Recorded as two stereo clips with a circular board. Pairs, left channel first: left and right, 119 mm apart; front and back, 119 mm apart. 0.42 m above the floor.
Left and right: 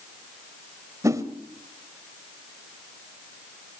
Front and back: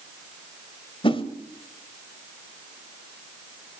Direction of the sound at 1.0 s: 30° right.